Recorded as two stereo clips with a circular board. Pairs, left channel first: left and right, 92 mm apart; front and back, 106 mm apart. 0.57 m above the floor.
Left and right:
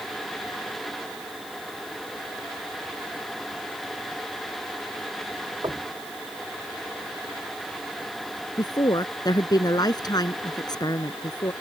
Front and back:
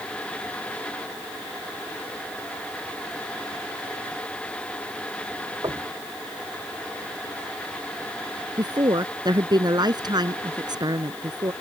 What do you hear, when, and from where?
5.6 s knocking: 135° right
8.6 s a woman speaking: 130° left